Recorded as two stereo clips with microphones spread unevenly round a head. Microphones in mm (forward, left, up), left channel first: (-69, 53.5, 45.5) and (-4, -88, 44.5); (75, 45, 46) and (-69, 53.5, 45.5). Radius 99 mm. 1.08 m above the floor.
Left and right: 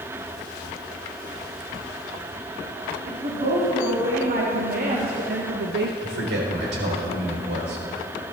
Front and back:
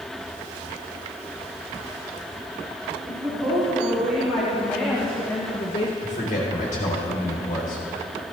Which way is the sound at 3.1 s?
105° right.